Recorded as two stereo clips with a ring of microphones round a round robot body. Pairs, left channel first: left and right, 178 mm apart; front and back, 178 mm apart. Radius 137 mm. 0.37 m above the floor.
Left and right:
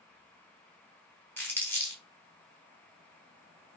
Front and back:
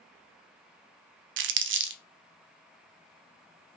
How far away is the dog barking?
No dog barking in this recording.